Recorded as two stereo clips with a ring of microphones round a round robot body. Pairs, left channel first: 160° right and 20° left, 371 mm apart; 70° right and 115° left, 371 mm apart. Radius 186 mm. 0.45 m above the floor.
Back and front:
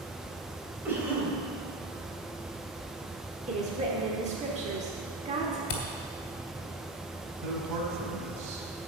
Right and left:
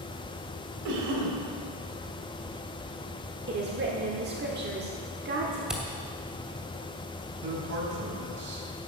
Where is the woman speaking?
80° left, 1.2 m.